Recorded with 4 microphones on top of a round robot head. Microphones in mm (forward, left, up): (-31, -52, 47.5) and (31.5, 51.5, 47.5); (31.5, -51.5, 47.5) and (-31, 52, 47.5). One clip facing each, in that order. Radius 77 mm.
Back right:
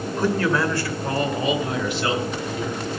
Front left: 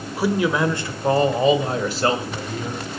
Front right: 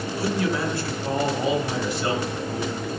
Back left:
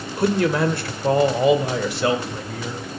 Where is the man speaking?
140° left, 1.5 m; by 2.8 s 100° left, 2.5 m.